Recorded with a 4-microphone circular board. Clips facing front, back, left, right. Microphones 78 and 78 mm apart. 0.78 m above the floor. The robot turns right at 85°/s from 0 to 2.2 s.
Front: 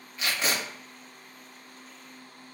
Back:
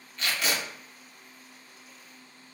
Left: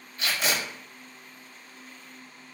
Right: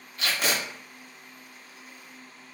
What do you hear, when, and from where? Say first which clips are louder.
0.2 s tape being pulled: even, right 1 dB; 80° right, 1.3 m; by 0.6 s 45° right, 1.3 m